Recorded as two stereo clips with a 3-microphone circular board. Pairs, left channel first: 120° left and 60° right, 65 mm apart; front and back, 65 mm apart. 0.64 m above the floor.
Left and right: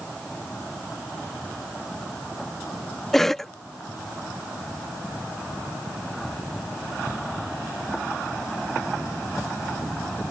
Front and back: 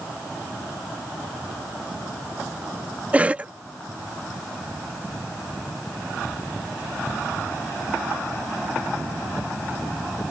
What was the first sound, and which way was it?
A cough, 165° right.